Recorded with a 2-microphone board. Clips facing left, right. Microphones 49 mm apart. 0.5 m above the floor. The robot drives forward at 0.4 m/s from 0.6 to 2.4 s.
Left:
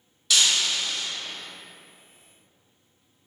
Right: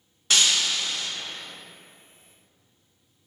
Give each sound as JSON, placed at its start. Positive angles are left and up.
{"t": 0.3, "sound": "breaking glass", "side_deg": -40, "distance_m": 0.5}